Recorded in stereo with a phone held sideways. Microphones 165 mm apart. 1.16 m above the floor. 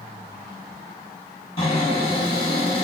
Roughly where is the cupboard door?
Left.